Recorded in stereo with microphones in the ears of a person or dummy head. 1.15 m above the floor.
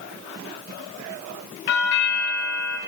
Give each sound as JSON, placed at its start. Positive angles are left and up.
{"t": 1.7, "sound": "a doorbell", "side_deg": 55, "distance_m": 0.8}